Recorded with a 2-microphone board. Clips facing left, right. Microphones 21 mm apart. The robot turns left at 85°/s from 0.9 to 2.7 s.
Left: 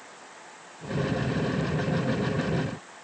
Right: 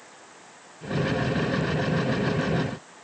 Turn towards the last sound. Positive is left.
No sound to turn to.